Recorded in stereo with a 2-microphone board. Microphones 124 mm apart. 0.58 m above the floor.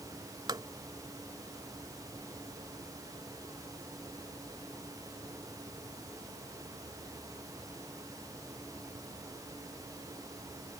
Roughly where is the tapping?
Right.